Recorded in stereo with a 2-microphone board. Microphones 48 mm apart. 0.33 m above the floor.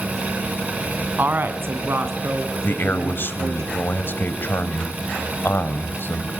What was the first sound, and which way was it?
A woman speaking, 45° right (ahead or behind).